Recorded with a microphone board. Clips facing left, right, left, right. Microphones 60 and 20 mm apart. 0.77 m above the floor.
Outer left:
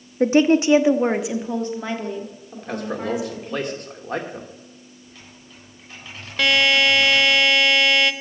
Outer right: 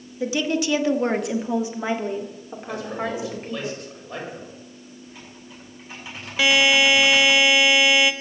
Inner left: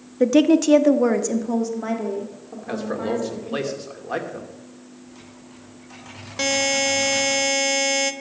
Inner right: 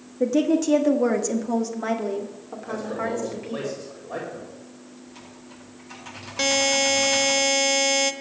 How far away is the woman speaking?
About 0.9 m.